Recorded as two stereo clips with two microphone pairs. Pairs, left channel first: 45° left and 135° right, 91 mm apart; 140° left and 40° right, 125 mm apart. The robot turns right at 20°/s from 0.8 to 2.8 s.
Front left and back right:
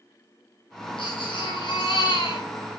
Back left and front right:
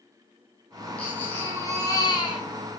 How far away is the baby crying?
About 8 m.